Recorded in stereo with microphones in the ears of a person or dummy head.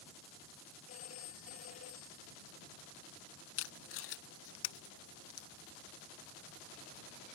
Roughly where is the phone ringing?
Left.